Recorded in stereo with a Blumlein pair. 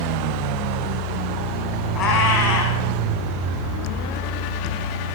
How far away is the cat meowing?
About 6.5 m.